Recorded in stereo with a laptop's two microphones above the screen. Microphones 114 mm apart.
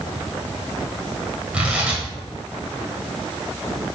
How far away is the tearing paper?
About 1.9 m.